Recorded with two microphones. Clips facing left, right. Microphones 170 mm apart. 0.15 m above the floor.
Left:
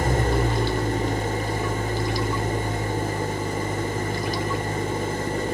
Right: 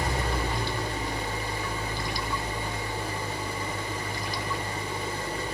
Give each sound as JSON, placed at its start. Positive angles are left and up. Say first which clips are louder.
{"t": 0.0, "sound": "an engine running", "louder": "left 7 dB", "side_deg": 50, "distance_m": 1.4}